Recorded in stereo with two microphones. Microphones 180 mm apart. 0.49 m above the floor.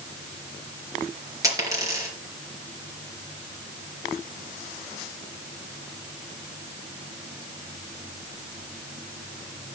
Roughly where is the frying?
No frying in this recording.